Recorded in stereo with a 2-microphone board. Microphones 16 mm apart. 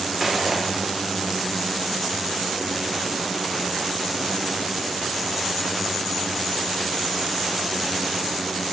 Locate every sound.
0.2 s footsteps: centre (ahead or behind), 3 m